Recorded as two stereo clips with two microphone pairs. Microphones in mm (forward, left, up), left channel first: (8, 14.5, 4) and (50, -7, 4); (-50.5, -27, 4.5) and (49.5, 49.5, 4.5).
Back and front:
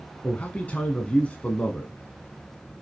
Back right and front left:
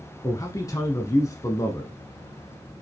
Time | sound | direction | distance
0.2 | a man speaking | straight behind | 1.2 m